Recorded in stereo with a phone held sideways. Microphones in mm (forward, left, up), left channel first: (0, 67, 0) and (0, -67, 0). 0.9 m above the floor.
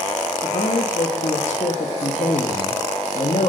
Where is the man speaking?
55° left (ahead or behind), 1.3 m.